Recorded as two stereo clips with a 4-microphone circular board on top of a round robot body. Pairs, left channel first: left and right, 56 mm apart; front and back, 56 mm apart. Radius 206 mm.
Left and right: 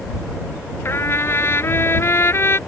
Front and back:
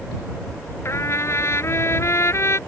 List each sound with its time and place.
0.8 s a trumpet: 40° left